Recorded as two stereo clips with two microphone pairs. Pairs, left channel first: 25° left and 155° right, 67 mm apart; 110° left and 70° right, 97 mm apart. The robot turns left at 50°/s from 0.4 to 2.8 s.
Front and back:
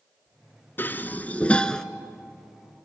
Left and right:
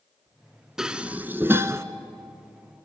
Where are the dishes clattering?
10° left, 0.9 m; by 1.8 s 45° right, 0.9 m.